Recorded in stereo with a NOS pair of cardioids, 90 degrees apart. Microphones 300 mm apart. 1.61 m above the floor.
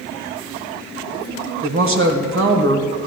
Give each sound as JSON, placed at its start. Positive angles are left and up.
{"t": 1.6, "sound": "a woman speaking", "azimuth_deg": -45, "distance_m": 1.4}